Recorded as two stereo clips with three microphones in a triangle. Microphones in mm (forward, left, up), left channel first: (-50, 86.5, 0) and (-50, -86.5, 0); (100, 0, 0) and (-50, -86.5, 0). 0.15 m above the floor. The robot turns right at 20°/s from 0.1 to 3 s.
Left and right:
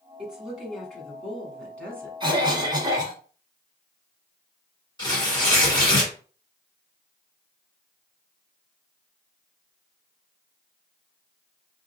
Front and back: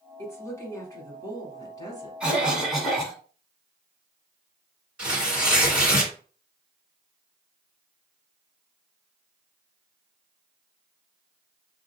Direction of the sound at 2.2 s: 75° right.